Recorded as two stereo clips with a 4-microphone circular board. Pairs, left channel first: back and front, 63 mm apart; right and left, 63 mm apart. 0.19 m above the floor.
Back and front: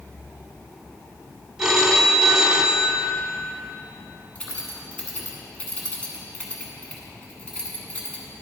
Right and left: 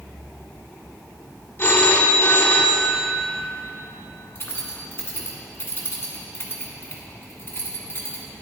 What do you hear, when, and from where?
1.6 s a phone ringing: 75° right, 0.9 m
4.3 s keys jangling: 115° right, 1.5 m